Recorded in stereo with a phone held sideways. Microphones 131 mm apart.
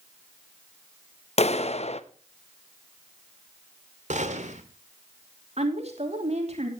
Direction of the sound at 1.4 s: 55° left (ahead or behind).